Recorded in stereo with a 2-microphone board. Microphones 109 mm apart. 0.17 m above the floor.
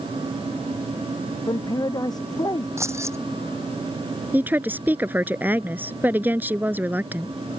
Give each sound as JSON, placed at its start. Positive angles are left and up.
{"t": 1.5, "sound": "a man speaking", "side_deg": 35}
{"t": 2.8, "sound": "keys jangling", "side_deg": -25}
{"t": 4.3, "sound": "a woman speaking", "side_deg": -15}